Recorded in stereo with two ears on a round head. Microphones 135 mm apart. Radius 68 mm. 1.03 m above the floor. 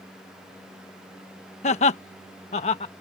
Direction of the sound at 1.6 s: 45° left (ahead or behind).